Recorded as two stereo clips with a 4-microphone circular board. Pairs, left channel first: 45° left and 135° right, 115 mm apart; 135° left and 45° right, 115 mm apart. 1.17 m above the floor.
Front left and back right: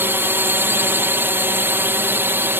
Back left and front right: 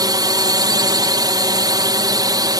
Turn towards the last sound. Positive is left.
turn(degrees=-75)